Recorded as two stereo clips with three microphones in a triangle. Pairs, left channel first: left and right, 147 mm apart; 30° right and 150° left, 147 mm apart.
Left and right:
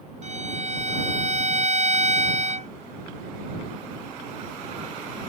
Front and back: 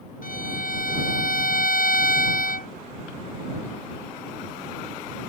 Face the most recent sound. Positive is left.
turn(degrees=-50)